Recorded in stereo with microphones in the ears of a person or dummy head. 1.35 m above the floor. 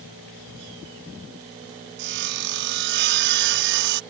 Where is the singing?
I don't hear singing.